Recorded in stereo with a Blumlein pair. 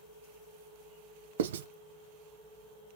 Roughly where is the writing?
Ahead right.